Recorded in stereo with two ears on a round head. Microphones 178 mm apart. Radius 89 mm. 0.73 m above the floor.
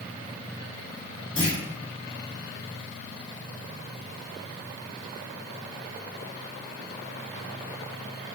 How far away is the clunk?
About 1.5 m.